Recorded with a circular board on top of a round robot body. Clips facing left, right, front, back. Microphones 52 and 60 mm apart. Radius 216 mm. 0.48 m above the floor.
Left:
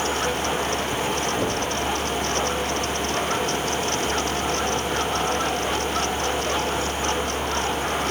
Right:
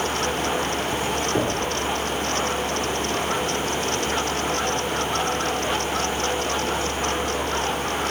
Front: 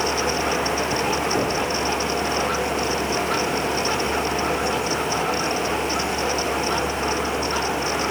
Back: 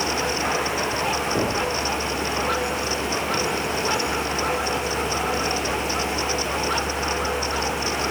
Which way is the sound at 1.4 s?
105° right.